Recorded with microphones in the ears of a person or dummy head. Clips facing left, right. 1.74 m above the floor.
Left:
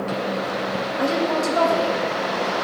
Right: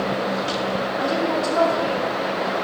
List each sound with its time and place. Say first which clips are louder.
1.0 s a woman speaking: left 2 dB; 35° left (ahead or behind), 1.2 m